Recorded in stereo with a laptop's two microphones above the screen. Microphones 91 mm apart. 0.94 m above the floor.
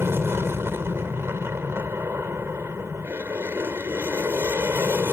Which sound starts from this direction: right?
An aircraft, at 0.0 s.